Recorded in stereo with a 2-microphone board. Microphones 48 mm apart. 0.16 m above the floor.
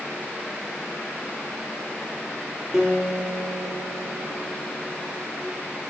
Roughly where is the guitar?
Centre.